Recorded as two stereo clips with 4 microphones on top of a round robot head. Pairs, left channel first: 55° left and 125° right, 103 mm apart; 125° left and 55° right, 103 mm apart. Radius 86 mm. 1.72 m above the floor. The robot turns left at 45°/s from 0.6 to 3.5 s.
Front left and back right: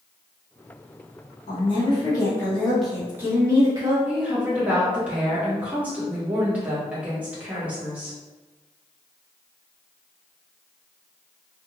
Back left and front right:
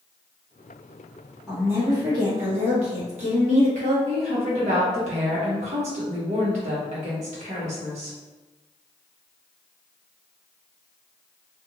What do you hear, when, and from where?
1.5 s a woman speaking: 25° left, 1.3 m; by 4.0 s 65° right, 1.3 m
4.0 s a woman speaking: 45° right, 1.2 m